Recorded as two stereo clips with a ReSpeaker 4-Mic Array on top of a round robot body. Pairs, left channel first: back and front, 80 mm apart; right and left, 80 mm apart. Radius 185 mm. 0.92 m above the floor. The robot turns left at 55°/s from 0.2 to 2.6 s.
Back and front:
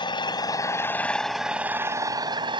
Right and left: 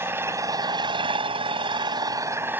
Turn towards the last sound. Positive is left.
turn(degrees=20)